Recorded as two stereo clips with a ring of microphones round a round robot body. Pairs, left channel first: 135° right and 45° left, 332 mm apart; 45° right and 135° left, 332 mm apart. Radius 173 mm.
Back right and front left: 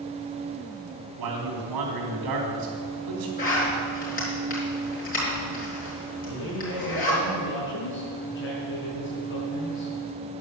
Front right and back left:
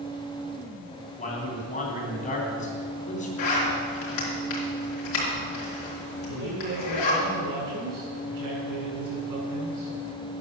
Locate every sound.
1.2 s a man speaking: 25° left, 3 m
3.4 s a zipper: 70° right, 4 m
6.3 s a man speaking: 170° left, 5.5 m